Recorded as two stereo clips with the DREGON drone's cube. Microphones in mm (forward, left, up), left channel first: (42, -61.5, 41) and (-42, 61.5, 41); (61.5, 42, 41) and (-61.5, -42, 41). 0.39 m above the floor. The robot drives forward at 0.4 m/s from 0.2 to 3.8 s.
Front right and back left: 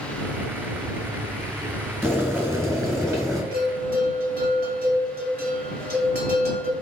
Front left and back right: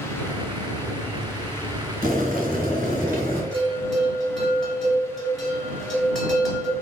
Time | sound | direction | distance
2.0 | boiling | 160° right | 1.8 m
3.5 | a bell | 120° left | 1.6 m